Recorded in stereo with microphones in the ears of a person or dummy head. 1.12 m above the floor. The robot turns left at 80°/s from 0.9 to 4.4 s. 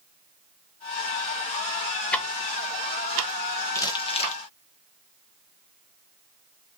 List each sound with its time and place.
2.1 s ticking: 10° left (ahead or behind), 0.6 m; by 4.4 s 10° right (ahead or behind), 0.6 m
3.8 s crumpling: 15° left (ahead or behind), 0.5 m; by 4.4 s 35° left (ahead or behind), 0.5 m